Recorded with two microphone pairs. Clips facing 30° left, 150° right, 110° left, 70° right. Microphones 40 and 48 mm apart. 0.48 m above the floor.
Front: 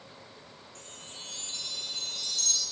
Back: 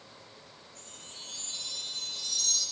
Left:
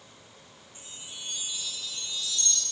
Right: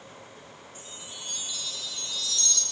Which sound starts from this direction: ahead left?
A chime, at 0.8 s.